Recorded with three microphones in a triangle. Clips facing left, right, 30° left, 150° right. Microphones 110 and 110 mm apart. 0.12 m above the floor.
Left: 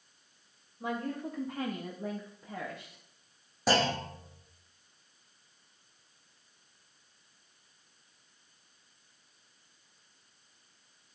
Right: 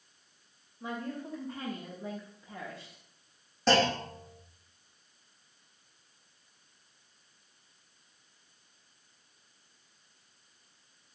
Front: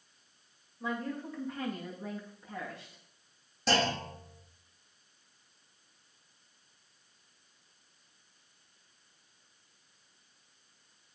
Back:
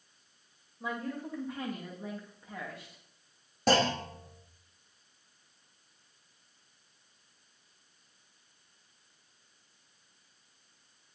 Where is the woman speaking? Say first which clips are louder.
Left 3 dB, front 1 dB; 130° left, 7.5 m; by 3.0 s 120° left, 6.5 m.